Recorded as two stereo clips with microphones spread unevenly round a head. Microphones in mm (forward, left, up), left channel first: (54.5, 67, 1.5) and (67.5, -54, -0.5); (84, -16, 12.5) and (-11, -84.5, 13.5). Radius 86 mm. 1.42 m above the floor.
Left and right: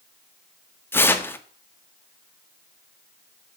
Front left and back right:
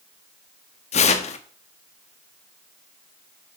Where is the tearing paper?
25° left, 1.3 m.